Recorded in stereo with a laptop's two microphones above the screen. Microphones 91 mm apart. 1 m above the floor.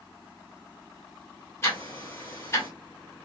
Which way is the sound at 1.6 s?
30° left (ahead or behind).